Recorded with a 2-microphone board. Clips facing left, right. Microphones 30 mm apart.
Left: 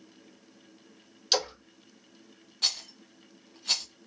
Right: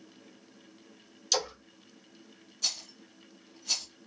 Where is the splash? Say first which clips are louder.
Left 3 dB; 40° left (ahead or behind), 2 m.